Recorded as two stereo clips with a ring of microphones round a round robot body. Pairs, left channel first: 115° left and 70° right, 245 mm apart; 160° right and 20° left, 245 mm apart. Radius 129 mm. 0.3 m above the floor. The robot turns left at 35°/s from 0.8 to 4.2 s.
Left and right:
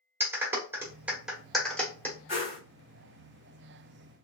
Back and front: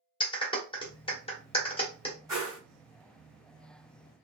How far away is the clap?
About 1.1 m.